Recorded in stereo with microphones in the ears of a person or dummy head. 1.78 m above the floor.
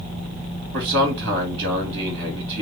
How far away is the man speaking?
About 2.5 m.